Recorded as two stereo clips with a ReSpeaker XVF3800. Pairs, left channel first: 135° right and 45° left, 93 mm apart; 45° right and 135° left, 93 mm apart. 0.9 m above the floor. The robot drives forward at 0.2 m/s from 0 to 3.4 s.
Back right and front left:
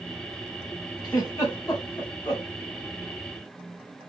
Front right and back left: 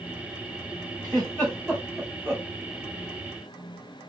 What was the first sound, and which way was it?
A giggle, straight behind.